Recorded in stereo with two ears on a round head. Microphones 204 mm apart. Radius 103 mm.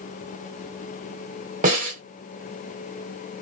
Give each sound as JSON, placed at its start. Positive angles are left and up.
{"t": 1.6, "sound": "a snare drum", "side_deg": -35, "distance_m": 1.9}